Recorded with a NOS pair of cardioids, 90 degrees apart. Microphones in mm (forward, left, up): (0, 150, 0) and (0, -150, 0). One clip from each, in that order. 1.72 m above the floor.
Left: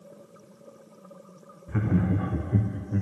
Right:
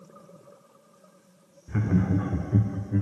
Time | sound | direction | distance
1.7 | laughter | straight ahead | 0.7 m